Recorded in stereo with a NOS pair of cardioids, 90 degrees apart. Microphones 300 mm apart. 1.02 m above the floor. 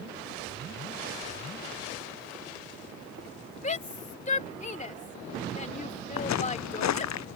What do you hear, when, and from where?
3.6 s a shout: 25° left
6.2 s footsteps: 70° left